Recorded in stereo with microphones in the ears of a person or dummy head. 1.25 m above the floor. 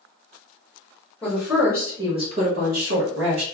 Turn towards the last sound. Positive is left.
turn(degrees=-80)